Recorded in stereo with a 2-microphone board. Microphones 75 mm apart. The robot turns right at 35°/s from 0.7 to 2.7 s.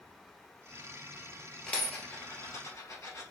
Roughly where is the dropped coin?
Centre.